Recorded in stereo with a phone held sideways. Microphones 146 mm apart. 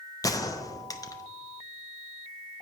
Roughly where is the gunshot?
Left.